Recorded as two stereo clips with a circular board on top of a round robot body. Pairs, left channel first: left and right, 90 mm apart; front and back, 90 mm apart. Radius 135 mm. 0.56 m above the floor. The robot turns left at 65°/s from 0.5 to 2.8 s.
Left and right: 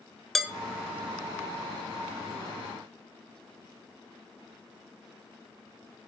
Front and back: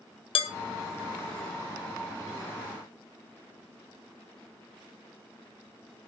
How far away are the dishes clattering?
About 1.1 m.